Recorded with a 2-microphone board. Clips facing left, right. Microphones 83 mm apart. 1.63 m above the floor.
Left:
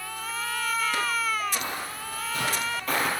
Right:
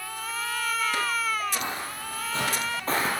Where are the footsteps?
25° right (ahead or behind), 2.5 m; by 3.1 s 30° right (ahead or behind), 1.9 m.